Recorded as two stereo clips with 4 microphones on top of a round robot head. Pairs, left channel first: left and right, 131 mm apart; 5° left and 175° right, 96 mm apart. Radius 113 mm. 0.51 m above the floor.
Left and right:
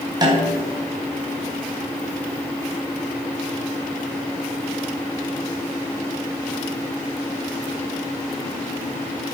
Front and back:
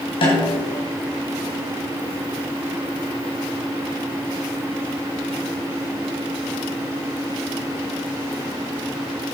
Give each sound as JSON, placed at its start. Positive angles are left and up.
{"t": 0.2, "sound": "a snare drum", "azimuth_deg": -30, "distance_m": 4.0}